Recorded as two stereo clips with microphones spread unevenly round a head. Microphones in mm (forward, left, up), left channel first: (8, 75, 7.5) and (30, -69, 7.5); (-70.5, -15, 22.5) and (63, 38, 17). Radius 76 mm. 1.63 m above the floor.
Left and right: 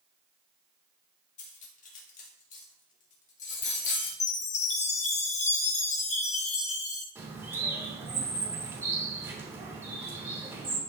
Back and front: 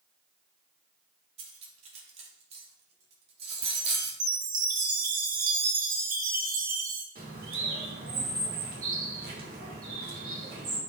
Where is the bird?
10° right, 3 m.